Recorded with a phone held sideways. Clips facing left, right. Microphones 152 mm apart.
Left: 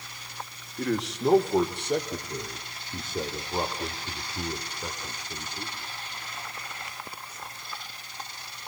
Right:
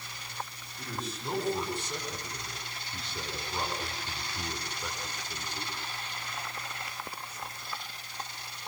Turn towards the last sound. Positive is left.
turn(degrees=15)  # may be behind; listen again after turning